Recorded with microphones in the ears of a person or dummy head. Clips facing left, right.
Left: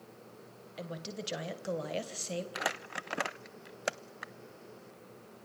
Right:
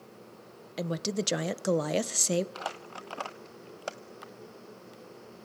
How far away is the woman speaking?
About 1.1 m.